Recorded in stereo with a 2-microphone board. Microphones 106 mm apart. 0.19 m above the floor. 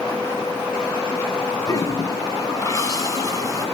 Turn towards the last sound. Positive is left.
turn(degrees=35)  # may be behind; listen again after turning